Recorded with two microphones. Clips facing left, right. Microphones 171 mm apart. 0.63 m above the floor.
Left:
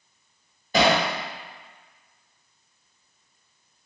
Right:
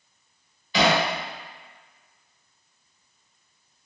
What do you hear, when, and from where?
0.7 s hammering: 45° left (ahead or behind), 1.2 m